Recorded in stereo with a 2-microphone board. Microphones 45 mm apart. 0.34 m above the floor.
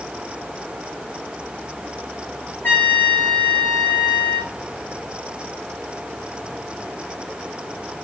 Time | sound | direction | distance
2.6 | a trumpet | 50° left (ahead or behind) | 5.5 m